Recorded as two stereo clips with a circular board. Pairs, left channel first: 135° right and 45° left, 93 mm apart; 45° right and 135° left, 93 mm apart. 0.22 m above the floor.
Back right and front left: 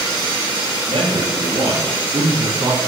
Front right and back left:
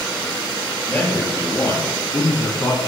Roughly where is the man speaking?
Ahead left.